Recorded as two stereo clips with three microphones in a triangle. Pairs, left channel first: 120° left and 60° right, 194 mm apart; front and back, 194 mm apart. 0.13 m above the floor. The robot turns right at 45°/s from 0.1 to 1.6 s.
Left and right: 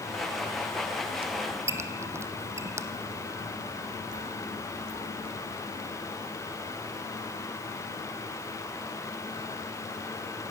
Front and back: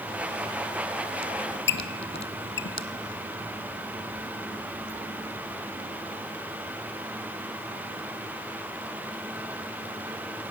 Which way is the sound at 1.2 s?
5° right.